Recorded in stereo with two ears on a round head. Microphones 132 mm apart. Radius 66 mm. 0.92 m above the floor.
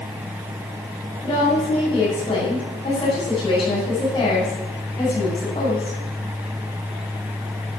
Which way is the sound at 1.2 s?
25° left (ahead or behind).